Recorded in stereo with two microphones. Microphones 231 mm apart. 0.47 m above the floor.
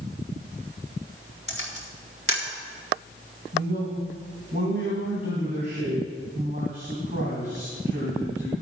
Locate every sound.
1.5 s a camera shutter: 65° left (ahead or behind), 1.5 m
3.5 s a man speaking: 50° right (ahead or behind), 2.5 m